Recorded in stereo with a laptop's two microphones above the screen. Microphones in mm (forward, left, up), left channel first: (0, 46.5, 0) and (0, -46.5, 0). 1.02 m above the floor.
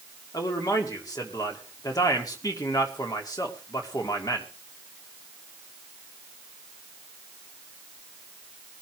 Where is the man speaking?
40° left (ahead or behind), 2 m.